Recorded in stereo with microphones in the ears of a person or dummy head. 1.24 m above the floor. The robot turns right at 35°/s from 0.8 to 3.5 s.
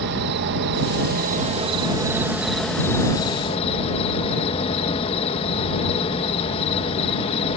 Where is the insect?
60° right; by 7.6 s 35° left.